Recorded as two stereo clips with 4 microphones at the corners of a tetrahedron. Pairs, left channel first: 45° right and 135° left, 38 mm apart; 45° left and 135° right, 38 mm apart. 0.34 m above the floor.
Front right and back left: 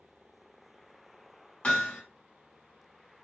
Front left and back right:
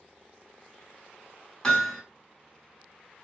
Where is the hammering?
10° right, 1.2 m.